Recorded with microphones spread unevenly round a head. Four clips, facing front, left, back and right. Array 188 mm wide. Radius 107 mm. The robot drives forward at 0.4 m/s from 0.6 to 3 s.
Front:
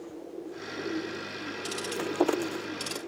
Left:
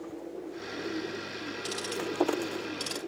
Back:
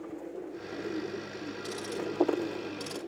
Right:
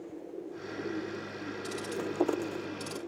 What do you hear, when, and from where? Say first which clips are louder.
1.6 s ticking: left 1 dB, front 2 dB; 135° right, 3 m; by 3.0 s 140° right, 3.5 m